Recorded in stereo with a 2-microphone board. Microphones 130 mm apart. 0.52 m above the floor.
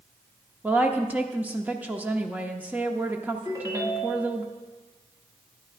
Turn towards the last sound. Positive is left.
turn(degrees=-25)  # may be behind; listen again after turning